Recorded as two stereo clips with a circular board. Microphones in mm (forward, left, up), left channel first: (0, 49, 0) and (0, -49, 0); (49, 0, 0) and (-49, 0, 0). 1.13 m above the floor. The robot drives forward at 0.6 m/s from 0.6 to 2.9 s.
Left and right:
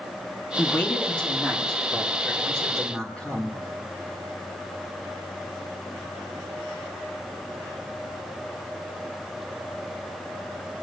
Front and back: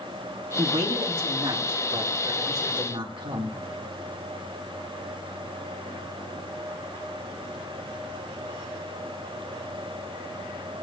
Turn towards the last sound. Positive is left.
turn(degrees=175)